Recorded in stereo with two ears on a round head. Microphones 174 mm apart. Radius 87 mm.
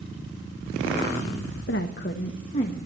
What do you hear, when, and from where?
1.7 s a woman speaking: 60° left (ahead or behind), 1.2 m; by 2.8 s 30° left (ahead or behind), 1.7 m